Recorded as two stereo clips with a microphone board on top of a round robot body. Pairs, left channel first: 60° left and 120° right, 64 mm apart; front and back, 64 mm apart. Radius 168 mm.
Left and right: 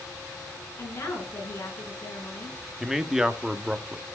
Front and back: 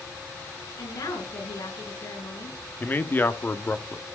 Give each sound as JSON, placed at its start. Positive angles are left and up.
{"t": 0.8, "sound": "a woman speaking", "azimuth_deg": 0, "distance_m": 7.5}
{"t": 2.8, "sound": "a man speaking", "azimuth_deg": -40, "distance_m": 1.5}